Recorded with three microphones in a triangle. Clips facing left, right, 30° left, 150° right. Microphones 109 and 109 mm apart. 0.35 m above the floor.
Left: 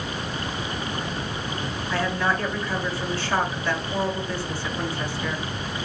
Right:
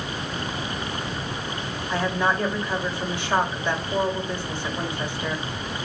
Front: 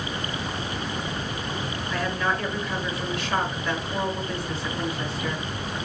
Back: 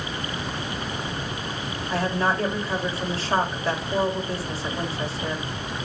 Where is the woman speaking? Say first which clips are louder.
Right 1 dB, back 3 dB; 150° right, 1.3 m.